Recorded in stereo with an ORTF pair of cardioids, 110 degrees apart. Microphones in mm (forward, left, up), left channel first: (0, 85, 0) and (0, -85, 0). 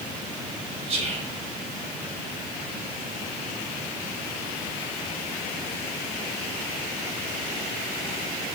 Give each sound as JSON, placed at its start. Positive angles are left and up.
{"t": 0.9, "sound": "whispering", "azimuth_deg": -40, "distance_m": 1.3}